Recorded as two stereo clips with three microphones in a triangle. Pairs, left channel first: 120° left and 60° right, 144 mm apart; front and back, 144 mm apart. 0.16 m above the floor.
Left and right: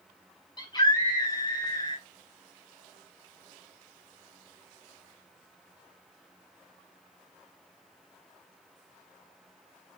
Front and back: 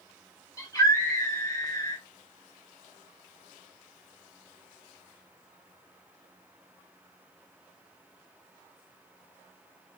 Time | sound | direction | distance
0.6 | a scream | 65° left | 3 m